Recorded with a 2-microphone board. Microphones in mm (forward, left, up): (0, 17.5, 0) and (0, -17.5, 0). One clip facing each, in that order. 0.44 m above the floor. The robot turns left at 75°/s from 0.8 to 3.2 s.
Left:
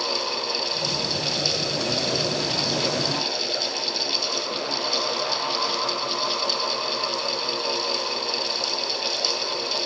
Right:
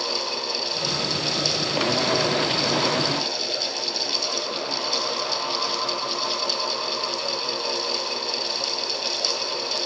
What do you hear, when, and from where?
Only background noise.